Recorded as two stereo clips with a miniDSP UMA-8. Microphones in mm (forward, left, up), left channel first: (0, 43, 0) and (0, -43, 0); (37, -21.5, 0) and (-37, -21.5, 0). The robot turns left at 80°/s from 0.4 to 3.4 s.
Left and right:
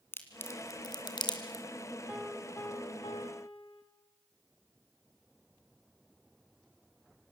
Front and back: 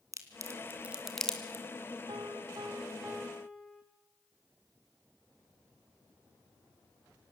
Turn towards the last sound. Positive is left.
turn(degrees=85)